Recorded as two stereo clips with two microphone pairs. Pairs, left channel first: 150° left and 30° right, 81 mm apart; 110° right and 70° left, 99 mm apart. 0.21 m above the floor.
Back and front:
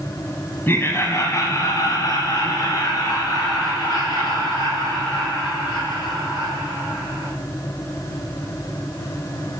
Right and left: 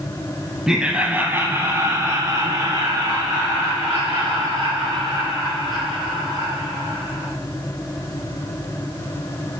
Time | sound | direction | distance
0.7 | laughter | 145° left | 1.1 m